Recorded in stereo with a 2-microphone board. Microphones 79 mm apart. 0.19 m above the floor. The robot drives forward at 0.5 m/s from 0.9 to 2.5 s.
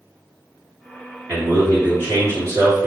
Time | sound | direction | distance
1.3 | a man speaking | 35° right (ahead or behind) | 1.9 m